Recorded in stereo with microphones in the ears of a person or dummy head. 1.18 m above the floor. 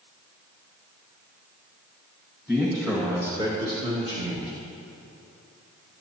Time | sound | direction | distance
2.5 | a man speaking | 10° right (ahead or behind) | 1.9 m